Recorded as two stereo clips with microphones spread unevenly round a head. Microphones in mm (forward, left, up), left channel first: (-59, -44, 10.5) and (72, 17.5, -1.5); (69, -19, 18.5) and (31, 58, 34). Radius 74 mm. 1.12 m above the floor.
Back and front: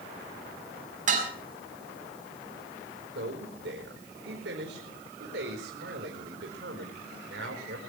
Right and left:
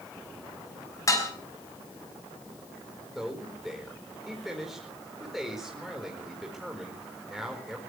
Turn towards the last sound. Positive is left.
turn(degrees=30)